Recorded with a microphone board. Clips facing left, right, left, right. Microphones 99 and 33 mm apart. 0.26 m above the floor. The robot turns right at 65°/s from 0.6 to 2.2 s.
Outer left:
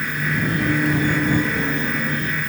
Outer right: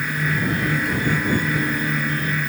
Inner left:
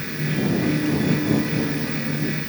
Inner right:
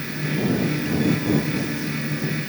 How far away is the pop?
I don't hear a pop.